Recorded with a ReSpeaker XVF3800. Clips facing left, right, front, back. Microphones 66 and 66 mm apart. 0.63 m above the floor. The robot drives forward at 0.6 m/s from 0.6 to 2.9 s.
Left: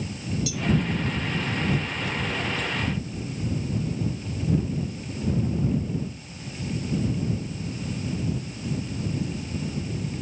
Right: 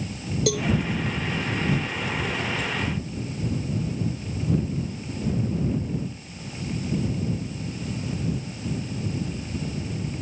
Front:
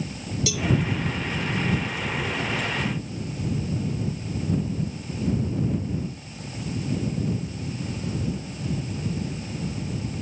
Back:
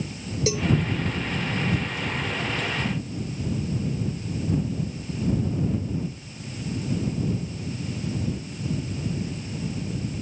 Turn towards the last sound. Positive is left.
turn(degrees=-125)